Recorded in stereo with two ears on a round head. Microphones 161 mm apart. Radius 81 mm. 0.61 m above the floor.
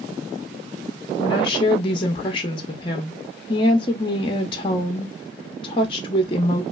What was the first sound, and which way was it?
A woman speaking, 25° left (ahead or behind).